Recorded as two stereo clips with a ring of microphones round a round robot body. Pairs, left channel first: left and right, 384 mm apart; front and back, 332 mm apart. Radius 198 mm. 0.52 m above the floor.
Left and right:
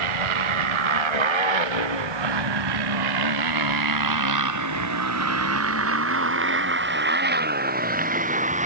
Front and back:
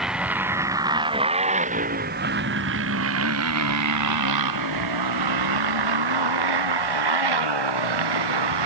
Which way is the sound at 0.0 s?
90° right.